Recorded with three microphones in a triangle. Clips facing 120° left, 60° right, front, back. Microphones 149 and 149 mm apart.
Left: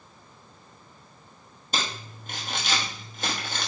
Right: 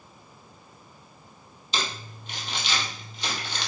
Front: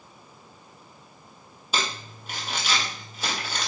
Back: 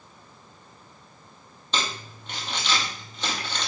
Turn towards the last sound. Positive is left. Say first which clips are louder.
# even, even
turn(degrees=80)